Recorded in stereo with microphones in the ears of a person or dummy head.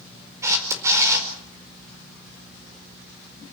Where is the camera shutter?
15° right (ahead or behind), 4.5 m.